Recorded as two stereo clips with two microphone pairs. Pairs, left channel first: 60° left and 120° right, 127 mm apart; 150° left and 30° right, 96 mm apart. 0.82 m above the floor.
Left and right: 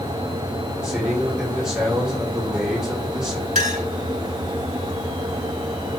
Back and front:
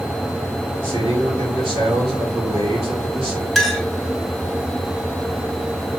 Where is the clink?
125° right, 1.1 m.